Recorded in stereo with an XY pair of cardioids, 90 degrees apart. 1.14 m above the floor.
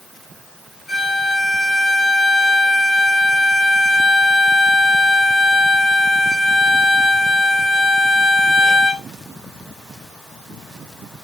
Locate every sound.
0.9 s a violin: 30° left, 1.1 m